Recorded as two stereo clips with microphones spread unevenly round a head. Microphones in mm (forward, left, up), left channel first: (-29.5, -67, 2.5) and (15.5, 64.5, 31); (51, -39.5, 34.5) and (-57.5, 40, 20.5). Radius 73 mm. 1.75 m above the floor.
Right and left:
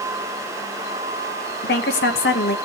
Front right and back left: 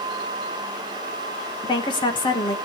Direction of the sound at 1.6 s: 90° right.